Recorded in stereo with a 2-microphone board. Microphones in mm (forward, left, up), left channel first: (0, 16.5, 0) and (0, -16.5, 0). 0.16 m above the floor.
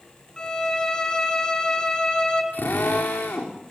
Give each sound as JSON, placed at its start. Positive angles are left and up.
{"t": 0.4, "sound": "a violin", "side_deg": 20, "distance_m": 2.5}
{"t": 2.5, "sound": "a drill", "side_deg": 85, "distance_m": 5.5}